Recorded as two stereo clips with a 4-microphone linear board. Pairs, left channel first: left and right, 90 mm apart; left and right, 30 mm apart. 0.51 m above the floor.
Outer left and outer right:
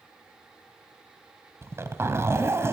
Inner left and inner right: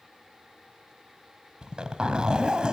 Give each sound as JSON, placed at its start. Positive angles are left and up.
{"t": 1.6, "sound": "a zipper", "side_deg": -30, "distance_m": 2.5}